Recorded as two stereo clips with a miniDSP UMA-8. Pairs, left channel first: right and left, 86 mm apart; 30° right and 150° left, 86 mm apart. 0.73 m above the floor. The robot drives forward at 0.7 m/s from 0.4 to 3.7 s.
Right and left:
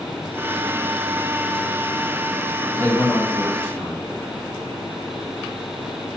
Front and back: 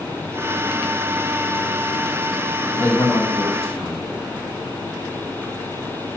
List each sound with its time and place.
2.7 s a man speaking: 40° right, 1.0 m; by 4.0 s 130° right, 1.0 m